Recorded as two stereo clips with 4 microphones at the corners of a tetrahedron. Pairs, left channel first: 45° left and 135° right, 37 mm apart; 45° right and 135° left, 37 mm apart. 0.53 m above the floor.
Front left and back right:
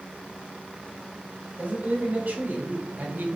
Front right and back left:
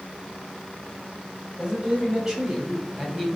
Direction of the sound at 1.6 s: 160° right.